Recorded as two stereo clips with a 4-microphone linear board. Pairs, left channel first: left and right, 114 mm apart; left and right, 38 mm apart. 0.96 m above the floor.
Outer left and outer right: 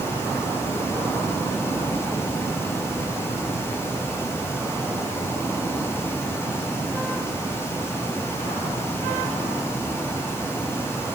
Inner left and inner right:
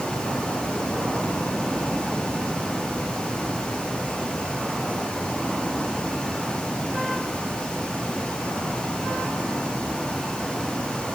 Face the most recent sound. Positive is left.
No sound to turn to.